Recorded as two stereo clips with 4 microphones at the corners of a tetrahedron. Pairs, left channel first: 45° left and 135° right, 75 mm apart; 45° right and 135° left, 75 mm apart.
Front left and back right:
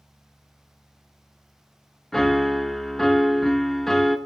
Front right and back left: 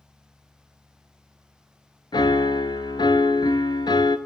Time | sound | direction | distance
2.1 | a piano | 40° right | 0.5 m